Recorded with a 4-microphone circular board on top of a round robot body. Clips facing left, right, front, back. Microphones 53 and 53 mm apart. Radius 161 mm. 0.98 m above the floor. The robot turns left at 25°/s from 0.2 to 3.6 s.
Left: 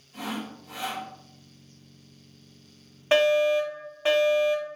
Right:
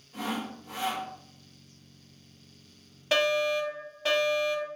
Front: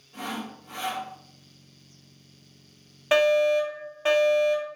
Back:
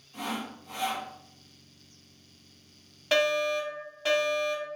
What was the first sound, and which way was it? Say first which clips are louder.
Sawing: right 1 dB, front 1 dB; 40° right.